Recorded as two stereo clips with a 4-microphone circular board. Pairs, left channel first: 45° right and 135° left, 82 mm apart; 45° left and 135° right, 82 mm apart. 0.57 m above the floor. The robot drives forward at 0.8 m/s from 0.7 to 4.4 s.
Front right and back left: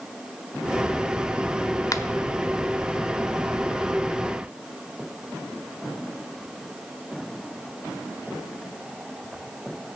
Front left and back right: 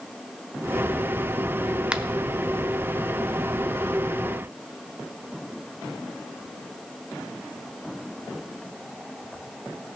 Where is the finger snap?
60° right, 0.6 m; by 2.0 s 70° right, 0.6 m.